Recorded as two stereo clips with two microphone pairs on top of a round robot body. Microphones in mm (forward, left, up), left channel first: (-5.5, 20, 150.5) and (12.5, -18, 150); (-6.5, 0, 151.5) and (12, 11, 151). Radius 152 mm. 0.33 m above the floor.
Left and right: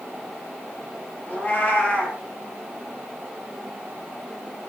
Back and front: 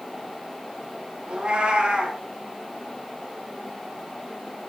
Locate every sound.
1.3 s a cat meowing: 60° left, 5 m